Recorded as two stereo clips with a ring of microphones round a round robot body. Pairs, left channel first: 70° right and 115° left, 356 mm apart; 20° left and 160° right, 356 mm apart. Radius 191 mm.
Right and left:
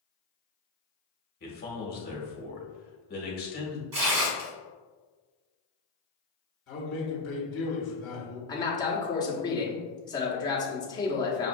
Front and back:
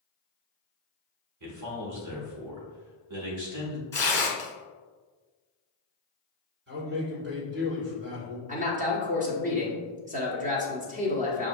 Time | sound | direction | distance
1.4 | a man speaking | 125° right | 1.3 m
3.9 | tearing paper | 105° left | 1.3 m
6.7 | a man speaking | 115° right | 1.9 m
8.5 | a man speaking | 130° right | 1.0 m